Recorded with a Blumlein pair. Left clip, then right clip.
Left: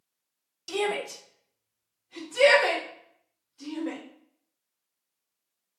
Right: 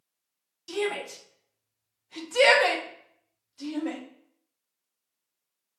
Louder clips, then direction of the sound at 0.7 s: Left 1 dB; 15° left.